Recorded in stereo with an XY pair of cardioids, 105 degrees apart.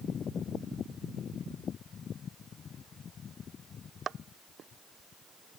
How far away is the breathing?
No breathing in this recording.